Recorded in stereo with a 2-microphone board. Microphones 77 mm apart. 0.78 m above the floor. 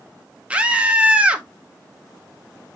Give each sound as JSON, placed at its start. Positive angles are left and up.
{"t": 0.5, "sound": "a scream", "side_deg": -15, "distance_m": 0.9}